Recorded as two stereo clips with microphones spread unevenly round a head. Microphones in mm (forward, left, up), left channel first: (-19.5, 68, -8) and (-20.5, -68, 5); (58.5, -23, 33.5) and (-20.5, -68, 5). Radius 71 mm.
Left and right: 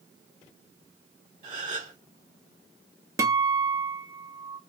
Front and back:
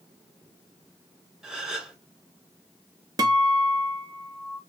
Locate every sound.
1.4 s a gasp: 60° right, 2 m
3.2 s a guitar: 110° right, 0.8 m